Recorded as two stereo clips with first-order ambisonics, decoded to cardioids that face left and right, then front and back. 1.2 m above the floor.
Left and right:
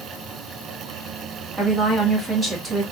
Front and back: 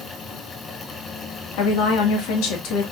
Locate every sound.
1.6 s a woman speaking: 10° right, 1.2 m